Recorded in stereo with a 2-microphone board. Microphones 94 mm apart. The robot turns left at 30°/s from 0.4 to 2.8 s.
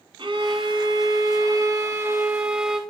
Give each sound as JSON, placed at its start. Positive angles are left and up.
{"t": 0.2, "sound": "a violin", "azimuth_deg": -100, "distance_m": 0.9}